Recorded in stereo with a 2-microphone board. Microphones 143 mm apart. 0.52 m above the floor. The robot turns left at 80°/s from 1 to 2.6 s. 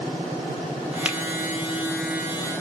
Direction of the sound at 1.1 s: 10° right (ahead or behind).